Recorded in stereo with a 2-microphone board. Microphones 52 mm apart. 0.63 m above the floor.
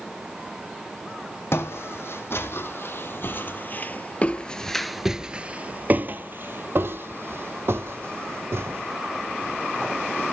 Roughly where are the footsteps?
Left.